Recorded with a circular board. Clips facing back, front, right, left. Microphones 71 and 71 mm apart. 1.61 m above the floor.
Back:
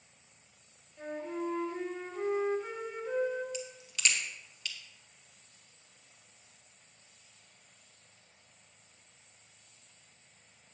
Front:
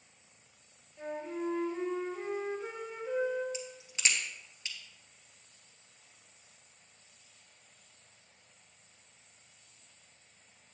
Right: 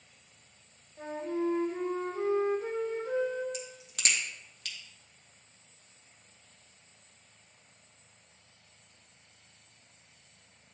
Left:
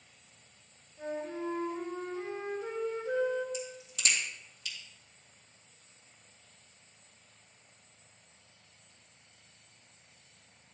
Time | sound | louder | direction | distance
1.0 | a flute | even, right 4 dB | 80° right | 2 m
3.5 | a crack | back 1 dB, left 2 dB | 60° right | 1.9 m